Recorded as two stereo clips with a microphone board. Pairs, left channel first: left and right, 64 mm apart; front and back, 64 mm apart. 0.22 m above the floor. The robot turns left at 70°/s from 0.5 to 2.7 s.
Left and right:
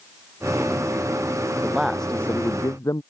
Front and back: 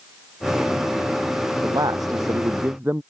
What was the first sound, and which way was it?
A man speaking, 160° right.